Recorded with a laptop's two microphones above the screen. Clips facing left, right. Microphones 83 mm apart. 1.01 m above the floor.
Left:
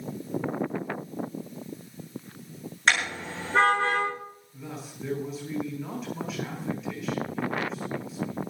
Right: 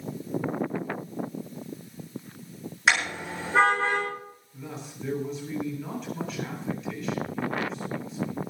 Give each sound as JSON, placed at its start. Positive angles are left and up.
{"t": 2.9, "sound": "a car horn", "side_deg": -5, "distance_m": 7.0}
{"t": 4.5, "sound": "a man speaking", "side_deg": 0, "distance_m": 8.0}